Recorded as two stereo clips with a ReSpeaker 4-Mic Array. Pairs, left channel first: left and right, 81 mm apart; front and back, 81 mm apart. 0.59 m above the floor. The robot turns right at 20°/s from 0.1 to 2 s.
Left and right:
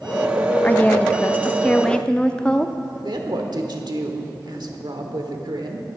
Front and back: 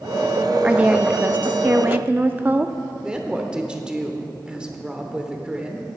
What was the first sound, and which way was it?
A woman speaking, 125° left.